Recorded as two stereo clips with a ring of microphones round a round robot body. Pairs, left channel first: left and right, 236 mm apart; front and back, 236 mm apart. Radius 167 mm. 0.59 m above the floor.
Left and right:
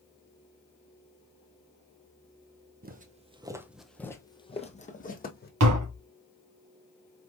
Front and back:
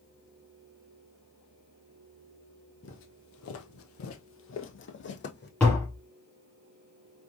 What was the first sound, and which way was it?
Footsteps, 45° right.